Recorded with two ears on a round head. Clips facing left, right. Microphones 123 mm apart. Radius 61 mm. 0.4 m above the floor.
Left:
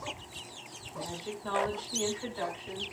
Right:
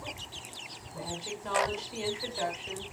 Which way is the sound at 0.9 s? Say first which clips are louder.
Even; 5° right (ahead or behind).